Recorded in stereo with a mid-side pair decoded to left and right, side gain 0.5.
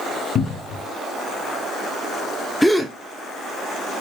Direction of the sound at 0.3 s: 55° left.